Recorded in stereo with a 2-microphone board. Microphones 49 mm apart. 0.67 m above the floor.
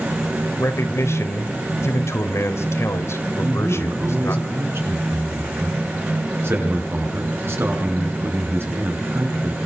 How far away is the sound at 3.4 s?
About 7 m.